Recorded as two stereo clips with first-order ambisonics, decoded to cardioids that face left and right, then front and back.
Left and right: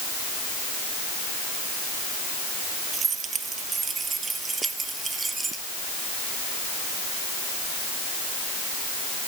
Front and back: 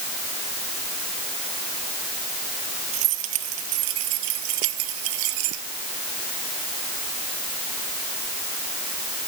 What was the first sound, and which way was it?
Keys jangling, 155° right.